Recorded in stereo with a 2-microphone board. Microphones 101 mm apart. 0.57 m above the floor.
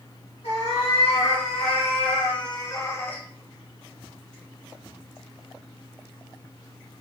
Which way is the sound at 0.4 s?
75° left (ahead or behind).